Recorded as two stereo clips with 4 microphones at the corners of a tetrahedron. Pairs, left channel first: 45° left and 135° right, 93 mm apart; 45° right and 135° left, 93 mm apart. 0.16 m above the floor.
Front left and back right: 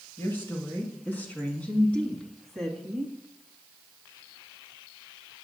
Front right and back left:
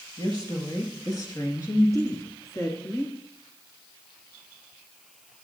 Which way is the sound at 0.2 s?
10° right.